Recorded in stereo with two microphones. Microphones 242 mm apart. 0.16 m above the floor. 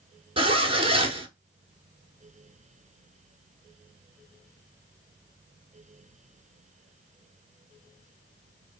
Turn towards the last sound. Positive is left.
turn(degrees=-25)  # may be behind; listen again after turning